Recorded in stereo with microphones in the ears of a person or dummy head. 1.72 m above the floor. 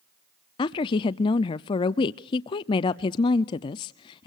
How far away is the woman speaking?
About 0.5 m.